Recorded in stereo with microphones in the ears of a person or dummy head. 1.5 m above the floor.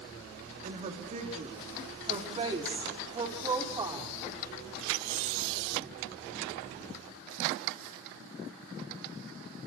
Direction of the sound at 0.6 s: 45° right (ahead or behind).